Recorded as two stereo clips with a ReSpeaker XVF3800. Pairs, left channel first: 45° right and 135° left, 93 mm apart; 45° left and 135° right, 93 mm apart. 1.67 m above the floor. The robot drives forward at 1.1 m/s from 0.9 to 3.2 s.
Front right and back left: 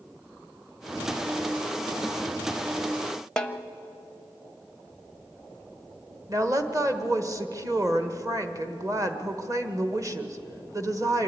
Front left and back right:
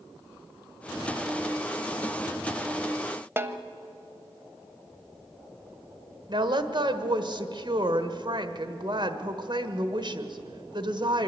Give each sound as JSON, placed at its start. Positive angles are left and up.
{"t": 3.4, "sound": "a snare drum", "azimuth_deg": -115, "distance_m": 0.8}
{"t": 6.3, "sound": "a woman speaking", "azimuth_deg": -175, "distance_m": 1.3}